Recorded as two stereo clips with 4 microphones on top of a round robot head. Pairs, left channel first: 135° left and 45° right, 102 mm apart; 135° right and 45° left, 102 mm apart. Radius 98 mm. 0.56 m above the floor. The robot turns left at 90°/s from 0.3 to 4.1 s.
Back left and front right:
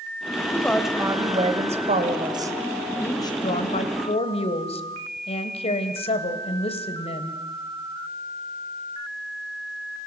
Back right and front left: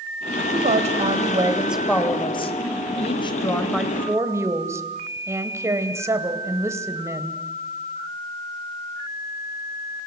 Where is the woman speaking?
70° left, 3 m; by 7.4 s 110° left, 3 m.